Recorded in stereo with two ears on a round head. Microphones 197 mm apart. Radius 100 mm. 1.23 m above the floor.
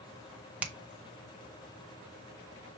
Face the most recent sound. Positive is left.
turn(degrees=-10)  # may be behind; listen again after turning